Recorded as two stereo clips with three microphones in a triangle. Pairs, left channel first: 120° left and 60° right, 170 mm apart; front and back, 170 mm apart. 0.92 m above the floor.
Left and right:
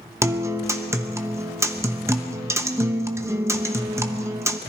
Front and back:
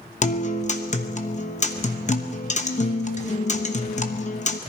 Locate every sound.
0.2 s a guitar: 10° left, 1.0 m